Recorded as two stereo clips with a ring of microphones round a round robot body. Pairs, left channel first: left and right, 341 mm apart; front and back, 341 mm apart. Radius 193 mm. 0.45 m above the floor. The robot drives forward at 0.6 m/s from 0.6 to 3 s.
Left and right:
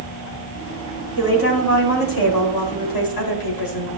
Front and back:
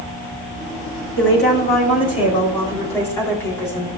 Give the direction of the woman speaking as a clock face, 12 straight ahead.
10 o'clock.